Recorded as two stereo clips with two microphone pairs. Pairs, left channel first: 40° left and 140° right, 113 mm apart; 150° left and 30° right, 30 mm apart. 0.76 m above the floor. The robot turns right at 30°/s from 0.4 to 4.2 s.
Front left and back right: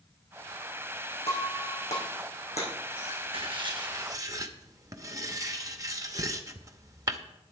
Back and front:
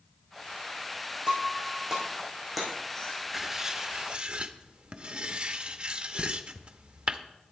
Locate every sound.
1.3 s breaking glass: 20° left, 4.5 m; by 3.2 s 80° left, 4.5 m
3.3 s writing: 105° right, 0.7 m; by 7.2 s 80° right, 0.7 m
6.2 s a thud: 120° right, 0.9 m